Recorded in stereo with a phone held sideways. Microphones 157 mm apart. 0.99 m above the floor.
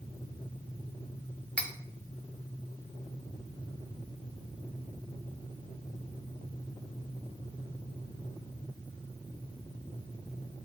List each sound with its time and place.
1.6 s cutlery clinking: 5° left (ahead or behind), 1.0 m